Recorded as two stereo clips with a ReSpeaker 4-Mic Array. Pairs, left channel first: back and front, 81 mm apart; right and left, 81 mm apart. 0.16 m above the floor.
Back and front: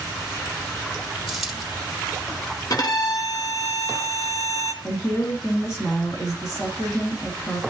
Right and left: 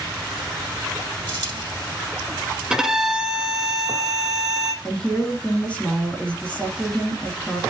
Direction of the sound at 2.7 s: 170° left.